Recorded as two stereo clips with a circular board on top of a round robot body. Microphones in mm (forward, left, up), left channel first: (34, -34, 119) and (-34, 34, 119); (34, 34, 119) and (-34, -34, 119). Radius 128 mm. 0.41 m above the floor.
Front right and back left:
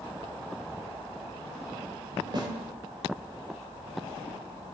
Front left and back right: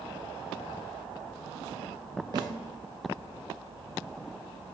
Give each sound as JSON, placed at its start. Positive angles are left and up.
{"t": 2.3, "sound": "a snare drum", "azimuth_deg": 180, "distance_m": 0.9}